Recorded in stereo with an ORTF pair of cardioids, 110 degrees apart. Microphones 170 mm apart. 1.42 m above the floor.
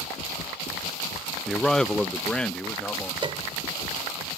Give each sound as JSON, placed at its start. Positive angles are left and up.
{"t": 1.5, "sound": "a man speaking", "azimuth_deg": 0}
{"t": 3.2, "sound": "a piano", "azimuth_deg": -30}